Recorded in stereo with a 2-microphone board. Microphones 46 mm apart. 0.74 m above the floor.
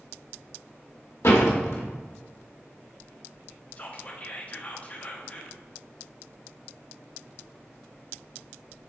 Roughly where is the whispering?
Left.